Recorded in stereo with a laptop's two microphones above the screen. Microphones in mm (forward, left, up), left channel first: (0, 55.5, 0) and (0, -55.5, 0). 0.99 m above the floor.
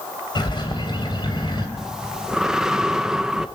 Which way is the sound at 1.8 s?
5° right (ahead or behind).